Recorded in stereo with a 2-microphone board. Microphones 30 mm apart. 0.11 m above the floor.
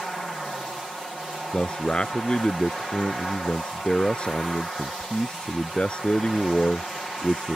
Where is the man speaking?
35° left (ahead or behind).